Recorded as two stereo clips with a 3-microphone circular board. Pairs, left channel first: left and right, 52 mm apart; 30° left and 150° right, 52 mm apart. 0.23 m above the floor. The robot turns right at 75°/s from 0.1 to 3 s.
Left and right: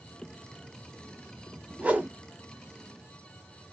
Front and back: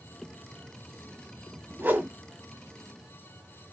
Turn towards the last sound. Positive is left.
turn(degrees=-55)